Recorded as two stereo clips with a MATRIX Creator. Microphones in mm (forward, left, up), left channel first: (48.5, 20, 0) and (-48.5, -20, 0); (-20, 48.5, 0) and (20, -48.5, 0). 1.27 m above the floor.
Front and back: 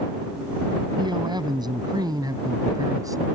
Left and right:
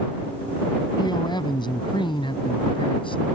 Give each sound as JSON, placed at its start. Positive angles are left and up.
{"t": 1.0, "sound": "a man speaking", "azimuth_deg": 160}